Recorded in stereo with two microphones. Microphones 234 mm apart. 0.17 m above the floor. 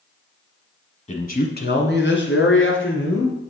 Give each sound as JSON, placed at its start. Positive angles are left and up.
{"t": 1.1, "sound": "a man speaking", "side_deg": 30, "distance_m": 1.1}